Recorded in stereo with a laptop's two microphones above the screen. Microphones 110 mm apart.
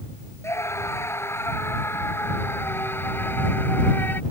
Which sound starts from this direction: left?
A scream, at 0.4 s.